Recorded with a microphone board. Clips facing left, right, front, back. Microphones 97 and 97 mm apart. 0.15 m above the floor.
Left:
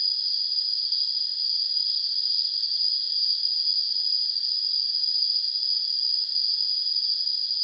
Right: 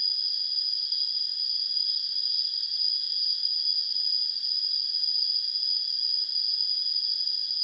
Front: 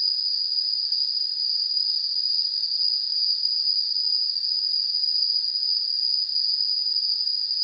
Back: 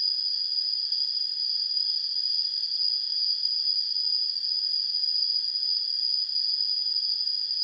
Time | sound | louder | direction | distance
0.0 | an insect | left 2 dB, front 3 dB | 85° right | ?